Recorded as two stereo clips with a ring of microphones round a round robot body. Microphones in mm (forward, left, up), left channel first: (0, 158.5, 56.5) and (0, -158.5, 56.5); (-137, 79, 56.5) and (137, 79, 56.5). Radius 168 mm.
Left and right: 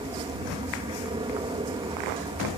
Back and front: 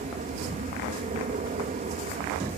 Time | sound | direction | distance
0.0 | an aircraft | 30° right | ?